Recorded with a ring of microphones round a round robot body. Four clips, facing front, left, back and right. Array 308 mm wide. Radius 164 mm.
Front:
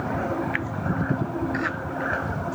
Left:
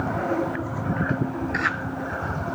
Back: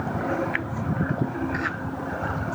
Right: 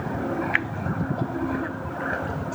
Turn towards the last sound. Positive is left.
No sound to turn to.